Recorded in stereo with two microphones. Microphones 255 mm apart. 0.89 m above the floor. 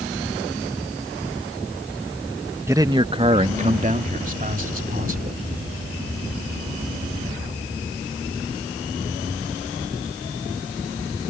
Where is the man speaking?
10° right (ahead or behind); by 5.4 s 35° right (ahead or behind).